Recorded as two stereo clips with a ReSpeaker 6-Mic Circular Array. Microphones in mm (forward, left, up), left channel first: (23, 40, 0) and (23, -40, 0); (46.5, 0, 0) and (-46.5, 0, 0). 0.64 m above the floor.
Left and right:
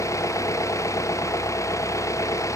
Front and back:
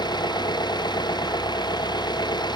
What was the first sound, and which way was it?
An engine running, 40° left.